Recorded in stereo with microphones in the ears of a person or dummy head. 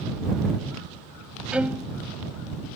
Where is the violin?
5° right (ahead or behind).